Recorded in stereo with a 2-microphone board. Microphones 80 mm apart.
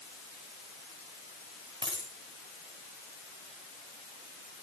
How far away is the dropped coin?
About 8 m.